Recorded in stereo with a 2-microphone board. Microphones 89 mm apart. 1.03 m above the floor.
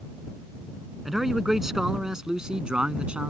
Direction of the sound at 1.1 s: Centre (ahead or behind).